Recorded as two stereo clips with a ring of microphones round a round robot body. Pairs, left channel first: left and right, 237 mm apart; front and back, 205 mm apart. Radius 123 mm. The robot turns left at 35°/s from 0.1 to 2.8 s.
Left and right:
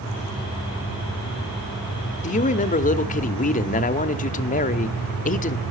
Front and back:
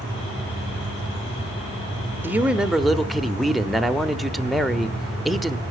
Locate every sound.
2.2 s a man speaking: 110° left, 1.0 m; by 5.6 s 90° left, 1.0 m